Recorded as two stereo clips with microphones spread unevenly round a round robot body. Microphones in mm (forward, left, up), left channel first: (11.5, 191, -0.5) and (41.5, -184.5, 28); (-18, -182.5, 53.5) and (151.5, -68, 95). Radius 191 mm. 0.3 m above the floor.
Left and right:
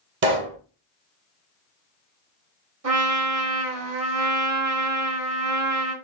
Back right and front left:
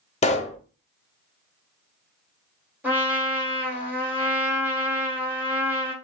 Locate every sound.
0.2 s a pop: 135° right, 0.8 m
2.8 s a trumpet: 55° right, 2.0 m